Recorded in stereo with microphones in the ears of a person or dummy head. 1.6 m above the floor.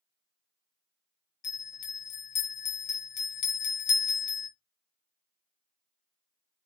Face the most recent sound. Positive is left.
turn(degrees=65)  # may be behind; listen again after turning